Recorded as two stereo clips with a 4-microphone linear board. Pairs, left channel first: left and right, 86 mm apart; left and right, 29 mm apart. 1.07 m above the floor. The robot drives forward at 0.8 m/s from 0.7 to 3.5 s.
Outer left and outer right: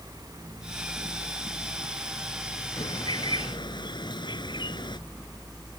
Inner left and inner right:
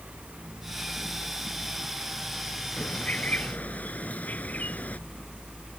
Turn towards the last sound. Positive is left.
turn(degrees=65)  # may be behind; listen again after turning